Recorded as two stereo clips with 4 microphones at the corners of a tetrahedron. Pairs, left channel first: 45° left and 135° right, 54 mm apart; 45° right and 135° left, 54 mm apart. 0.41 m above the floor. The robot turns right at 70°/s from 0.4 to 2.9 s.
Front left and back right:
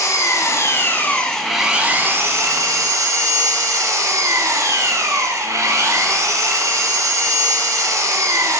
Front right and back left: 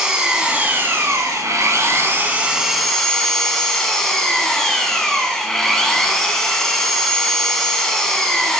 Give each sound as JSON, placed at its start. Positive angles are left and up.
{"t": 0.0, "sound": "an engine running", "azimuth_deg": 55, "distance_m": 1.3}